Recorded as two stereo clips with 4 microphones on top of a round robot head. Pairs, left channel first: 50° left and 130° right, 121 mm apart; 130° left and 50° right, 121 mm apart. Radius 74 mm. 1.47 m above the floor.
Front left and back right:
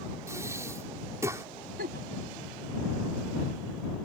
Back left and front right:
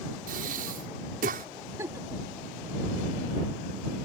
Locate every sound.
0.3 s breathing: 60° right
1.8 s a giggle: 120° right